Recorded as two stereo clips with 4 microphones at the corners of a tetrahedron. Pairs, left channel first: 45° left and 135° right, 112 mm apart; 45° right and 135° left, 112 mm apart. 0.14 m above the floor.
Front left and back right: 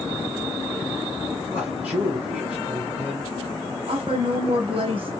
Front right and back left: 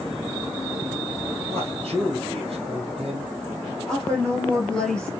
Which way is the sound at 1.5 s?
145° left.